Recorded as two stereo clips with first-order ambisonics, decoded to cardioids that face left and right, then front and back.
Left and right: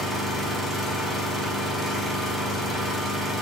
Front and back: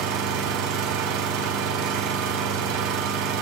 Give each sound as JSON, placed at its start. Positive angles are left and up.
{"t": 0.0, "sound": "an engine running", "azimuth_deg": 180, "distance_m": 4.5}